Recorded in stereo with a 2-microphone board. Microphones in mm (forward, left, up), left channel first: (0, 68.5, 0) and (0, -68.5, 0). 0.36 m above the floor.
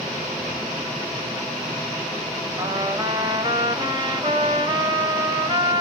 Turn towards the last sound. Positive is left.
turn(degrees=-30)  # may be behind; listen again after turning